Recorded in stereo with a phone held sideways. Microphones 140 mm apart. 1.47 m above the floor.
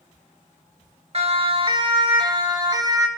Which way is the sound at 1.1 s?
45° right (ahead or behind).